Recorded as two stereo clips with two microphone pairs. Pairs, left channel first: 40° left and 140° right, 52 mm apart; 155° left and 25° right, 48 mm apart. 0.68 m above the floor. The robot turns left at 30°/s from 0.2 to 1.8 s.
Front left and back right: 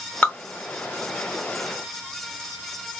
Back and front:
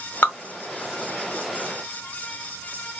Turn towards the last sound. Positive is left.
turn(degrees=55)